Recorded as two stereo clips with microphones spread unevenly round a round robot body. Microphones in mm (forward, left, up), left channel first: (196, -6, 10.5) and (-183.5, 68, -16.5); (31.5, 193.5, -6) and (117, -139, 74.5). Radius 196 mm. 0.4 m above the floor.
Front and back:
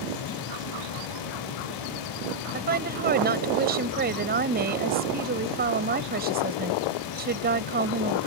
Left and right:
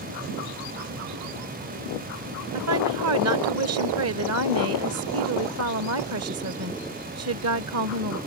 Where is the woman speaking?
130° right.